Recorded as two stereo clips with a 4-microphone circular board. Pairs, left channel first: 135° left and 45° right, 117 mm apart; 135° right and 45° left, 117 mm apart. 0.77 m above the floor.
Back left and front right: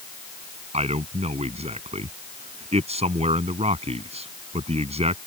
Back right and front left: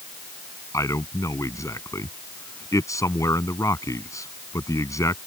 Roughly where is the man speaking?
Right.